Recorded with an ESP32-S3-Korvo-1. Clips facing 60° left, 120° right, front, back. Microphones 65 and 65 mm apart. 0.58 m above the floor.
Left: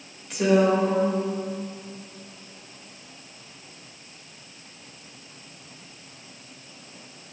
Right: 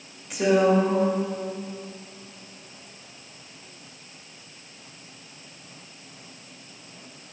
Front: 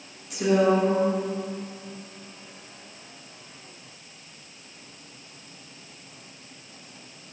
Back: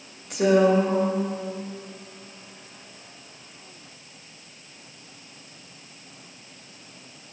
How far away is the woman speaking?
About 2 m.